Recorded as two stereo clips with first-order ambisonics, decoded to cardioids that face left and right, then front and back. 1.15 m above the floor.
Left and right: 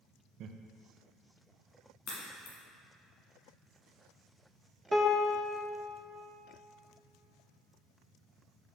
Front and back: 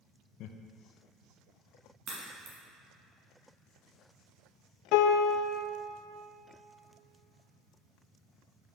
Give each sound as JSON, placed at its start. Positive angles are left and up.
{"t": 0.4, "sound": "laughter", "azimuth_deg": -40, "distance_m": 0.5}
{"t": 2.1, "sound": "a crack", "azimuth_deg": 130, "distance_m": 1.7}
{"t": 4.9, "sound": "a piano", "azimuth_deg": 5, "distance_m": 0.5}